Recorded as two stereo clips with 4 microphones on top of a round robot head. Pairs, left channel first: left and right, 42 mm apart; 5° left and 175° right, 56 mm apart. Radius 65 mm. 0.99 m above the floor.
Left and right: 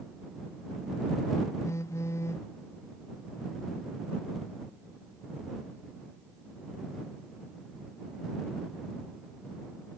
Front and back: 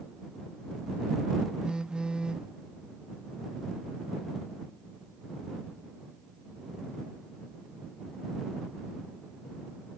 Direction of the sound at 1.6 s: 105° left.